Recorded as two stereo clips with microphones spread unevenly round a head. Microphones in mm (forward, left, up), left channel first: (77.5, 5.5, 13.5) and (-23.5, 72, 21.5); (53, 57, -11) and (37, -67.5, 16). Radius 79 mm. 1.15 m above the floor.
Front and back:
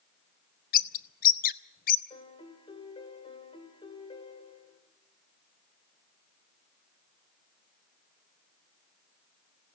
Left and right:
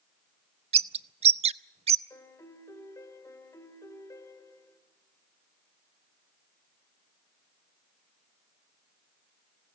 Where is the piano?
15° left, 3 m.